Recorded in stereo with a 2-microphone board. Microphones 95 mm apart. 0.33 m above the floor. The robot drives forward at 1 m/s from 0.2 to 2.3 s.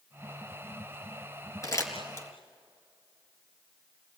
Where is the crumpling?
35° left (ahead or behind), 4 m; by 2.3 s 30° left (ahead or behind), 4.5 m.